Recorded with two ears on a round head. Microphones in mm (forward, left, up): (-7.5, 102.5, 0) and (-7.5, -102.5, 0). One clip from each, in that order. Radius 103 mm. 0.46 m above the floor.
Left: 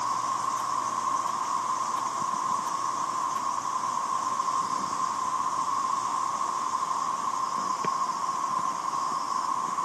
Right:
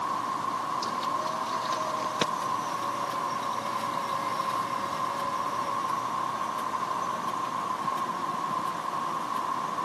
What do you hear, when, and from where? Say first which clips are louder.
0.0 s an insect: left 2 dB; 75° left (ahead or behind)